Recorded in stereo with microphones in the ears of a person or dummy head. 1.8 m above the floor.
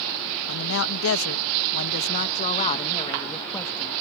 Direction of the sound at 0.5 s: 70° left (ahead or behind).